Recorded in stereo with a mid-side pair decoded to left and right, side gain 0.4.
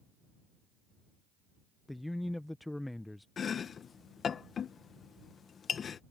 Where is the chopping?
55° left.